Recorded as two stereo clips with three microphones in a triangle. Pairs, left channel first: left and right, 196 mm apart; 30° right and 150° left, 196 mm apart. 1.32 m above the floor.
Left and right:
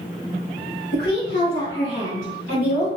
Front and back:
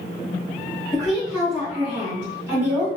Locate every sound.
0.9 s a woman speaking: 55° left, 1.7 m; by 2.9 s 80° left, 2.5 m